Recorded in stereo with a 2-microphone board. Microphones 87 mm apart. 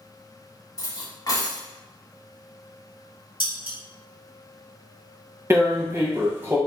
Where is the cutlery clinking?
40° left (ahead or behind), 1.0 m.